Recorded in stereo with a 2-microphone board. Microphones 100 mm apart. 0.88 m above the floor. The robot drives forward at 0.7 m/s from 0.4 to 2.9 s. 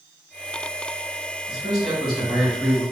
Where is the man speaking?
5° left (ahead or behind), 1.7 m; by 2.8 s centre (ahead or behind), 2.5 m.